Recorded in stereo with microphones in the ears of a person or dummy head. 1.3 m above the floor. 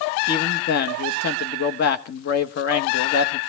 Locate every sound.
0.3 s a man speaking: 55° left (ahead or behind), 1.5 m